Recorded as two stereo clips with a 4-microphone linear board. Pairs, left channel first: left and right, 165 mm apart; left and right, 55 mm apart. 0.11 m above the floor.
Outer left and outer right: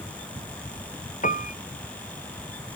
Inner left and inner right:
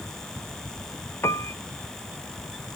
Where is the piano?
50° left (ahead or behind).